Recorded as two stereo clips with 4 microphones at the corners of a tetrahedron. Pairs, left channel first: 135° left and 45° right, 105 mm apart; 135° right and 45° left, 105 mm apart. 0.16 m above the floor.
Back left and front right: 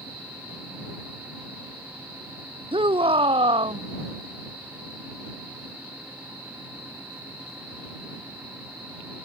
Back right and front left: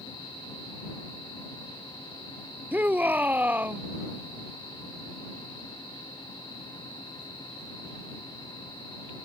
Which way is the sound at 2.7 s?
25° right.